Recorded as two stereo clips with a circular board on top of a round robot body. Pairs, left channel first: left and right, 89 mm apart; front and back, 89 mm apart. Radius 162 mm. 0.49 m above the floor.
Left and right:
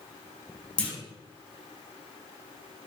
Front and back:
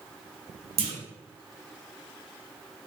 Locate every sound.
0.8 s a clunk: 170° left, 0.7 m